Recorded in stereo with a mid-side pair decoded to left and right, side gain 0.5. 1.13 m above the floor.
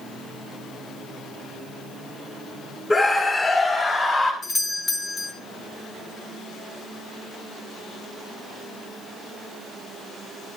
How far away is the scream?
About 3.5 m.